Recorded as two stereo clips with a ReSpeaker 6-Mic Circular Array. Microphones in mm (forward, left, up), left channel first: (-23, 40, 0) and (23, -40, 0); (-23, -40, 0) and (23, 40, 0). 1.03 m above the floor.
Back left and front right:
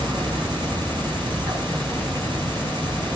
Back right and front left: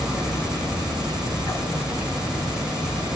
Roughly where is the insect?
Ahead.